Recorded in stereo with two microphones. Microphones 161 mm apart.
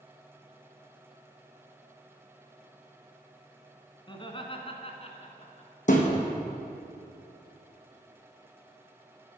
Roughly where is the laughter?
Left.